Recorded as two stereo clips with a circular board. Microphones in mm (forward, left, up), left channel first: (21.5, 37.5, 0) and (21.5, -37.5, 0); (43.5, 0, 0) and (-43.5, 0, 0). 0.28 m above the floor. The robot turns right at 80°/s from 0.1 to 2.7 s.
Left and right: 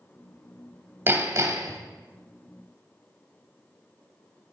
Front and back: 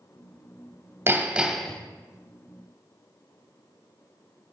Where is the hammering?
135° right, 0.9 m; by 1.8 s 75° right, 0.9 m.